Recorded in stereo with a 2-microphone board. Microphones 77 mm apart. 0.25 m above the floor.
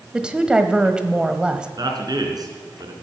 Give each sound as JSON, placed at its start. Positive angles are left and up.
{"t": 0.1, "sound": "a woman speaking", "side_deg": -10, "distance_m": 1.2}
{"t": 1.8, "sound": "a man speaking", "side_deg": -55, "distance_m": 3.5}